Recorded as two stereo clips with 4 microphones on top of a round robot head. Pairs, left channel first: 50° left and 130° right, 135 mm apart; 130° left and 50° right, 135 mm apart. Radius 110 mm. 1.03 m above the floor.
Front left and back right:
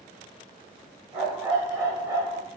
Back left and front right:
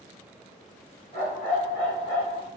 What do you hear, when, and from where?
1.1 s a dog barking: 165° left, 1.2 m